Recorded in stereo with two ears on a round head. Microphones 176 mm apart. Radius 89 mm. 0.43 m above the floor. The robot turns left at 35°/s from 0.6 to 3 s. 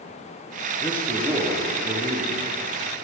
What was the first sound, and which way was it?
A man speaking, 20° left.